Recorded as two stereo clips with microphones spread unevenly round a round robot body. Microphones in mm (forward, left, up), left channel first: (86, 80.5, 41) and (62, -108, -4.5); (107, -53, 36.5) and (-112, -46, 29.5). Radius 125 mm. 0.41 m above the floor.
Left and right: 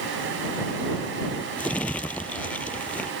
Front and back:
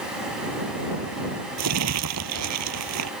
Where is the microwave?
I don't hear a microwave.